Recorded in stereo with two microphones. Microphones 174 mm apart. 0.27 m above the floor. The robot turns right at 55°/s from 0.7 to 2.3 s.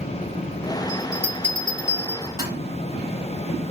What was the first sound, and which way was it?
A bell, 25° left (ahead or behind).